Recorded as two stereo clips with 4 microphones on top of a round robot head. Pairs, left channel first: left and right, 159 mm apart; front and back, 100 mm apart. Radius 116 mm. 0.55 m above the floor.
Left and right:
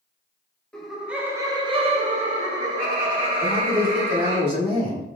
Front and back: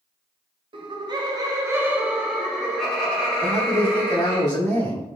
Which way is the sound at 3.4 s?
45° right.